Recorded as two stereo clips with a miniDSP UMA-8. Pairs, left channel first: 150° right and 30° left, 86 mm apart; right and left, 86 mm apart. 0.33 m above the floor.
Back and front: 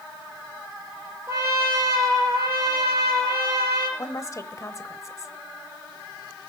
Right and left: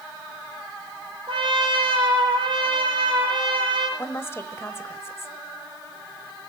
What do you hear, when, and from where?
1.3 s a trumpet: 90° left, 4.5 m
4.0 s a woman speaking: 130° right, 1.1 m